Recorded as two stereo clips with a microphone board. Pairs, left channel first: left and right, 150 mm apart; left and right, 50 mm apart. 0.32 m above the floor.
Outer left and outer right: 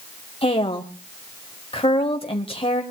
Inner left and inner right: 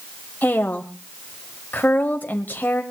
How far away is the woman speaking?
About 1.1 m.